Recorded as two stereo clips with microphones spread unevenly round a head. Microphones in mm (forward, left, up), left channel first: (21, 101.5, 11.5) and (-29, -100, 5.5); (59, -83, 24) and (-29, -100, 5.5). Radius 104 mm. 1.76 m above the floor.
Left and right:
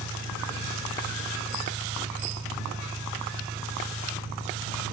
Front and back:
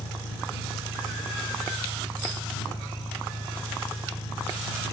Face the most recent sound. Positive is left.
turn(degrees=-25)